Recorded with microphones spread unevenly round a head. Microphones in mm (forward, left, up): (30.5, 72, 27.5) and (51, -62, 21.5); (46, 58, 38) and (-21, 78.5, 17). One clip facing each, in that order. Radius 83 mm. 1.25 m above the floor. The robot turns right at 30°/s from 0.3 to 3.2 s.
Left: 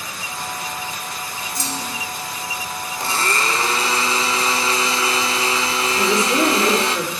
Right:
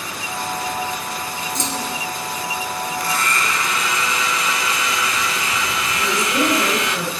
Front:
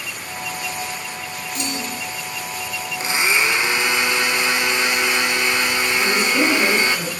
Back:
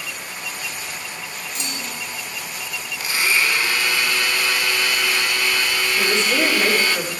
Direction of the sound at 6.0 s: 100° left.